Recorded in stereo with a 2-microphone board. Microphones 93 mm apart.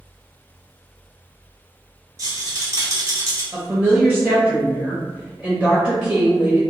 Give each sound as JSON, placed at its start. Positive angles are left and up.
{"t": 2.2, "sound": "a rattle", "side_deg": -35, "distance_m": 0.8}
{"t": 3.5, "sound": "a woman speaking", "side_deg": -5, "distance_m": 0.7}